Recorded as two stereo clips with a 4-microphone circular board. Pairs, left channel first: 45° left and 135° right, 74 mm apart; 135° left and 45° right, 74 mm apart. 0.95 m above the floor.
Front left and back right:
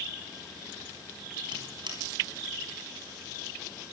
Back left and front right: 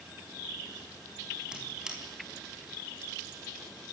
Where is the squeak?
125° right, 4.5 m.